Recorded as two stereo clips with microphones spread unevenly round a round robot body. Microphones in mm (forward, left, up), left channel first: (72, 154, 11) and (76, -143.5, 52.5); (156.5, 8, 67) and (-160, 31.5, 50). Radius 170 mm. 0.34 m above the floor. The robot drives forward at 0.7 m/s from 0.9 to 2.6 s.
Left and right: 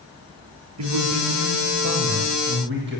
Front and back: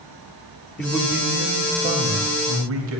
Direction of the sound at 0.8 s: 95° right.